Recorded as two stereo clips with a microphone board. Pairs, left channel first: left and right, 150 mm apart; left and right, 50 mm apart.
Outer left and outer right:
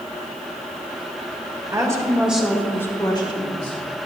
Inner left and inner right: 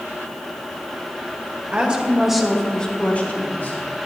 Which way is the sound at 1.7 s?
25° right (ahead or behind).